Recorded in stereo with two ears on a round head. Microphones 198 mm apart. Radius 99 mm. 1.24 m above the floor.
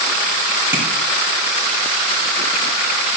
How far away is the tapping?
About 3.5 m.